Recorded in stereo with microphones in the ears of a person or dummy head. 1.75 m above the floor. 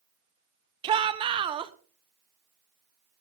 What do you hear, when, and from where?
0.8 s a shout: 25° right (ahead or behind), 0.8 m